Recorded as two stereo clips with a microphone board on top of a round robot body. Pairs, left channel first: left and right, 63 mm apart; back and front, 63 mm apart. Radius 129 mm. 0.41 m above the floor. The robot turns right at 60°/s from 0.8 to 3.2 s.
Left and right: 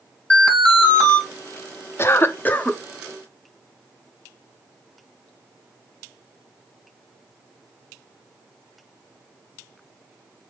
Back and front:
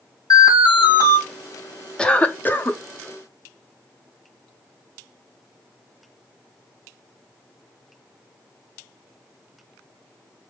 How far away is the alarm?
About 2.5 m.